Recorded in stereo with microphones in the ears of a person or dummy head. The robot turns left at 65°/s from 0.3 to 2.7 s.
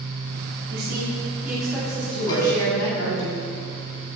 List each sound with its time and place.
0.7 s a woman speaking: 115° right, 3.5 m; by 3.3 s 115° left, 3.5 m
2.3 s a cowbell: 25° left (ahead or behind), 4 m; by 2.5 s 10° left (ahead or behind), 4 m